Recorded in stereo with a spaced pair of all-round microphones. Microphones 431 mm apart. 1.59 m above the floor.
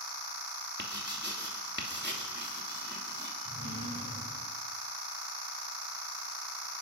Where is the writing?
25° right (ahead or behind), 3 m.